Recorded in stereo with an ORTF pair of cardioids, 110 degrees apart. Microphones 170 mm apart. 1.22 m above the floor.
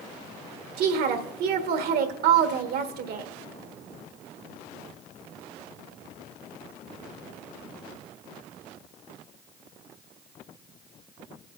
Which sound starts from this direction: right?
A woman speaking, at 0.8 s.